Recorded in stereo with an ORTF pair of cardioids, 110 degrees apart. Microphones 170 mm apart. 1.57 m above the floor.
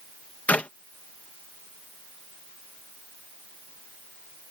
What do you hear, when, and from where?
0.5 s a clap: 10° left